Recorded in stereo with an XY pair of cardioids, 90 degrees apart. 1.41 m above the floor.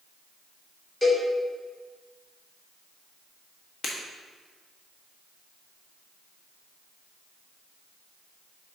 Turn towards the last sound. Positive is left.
turn(degrees=55)